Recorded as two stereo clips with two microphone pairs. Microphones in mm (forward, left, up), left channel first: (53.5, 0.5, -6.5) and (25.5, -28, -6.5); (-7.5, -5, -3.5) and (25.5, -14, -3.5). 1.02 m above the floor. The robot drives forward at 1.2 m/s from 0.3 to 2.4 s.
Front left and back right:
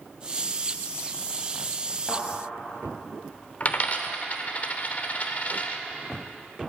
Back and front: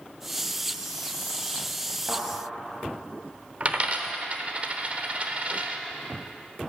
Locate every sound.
2.1 s a thud: 25° right, 4.5 m; by 2.2 s 30° right, 4.5 m
3.6 s a dropped coin: 10° left, 0.9 m